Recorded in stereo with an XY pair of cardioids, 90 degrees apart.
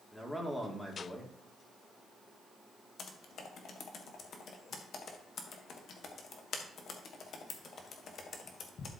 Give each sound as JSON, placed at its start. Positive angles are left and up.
{"t": 0.1, "sound": "a man speaking", "azimuth_deg": 5, "distance_m": 2.5}
{"t": 3.0, "sound": "typing on a keyboard", "azimuth_deg": 60, "distance_m": 1.4}